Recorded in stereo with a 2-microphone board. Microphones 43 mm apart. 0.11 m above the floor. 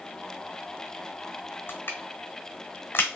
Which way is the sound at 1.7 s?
60° left (ahead or behind).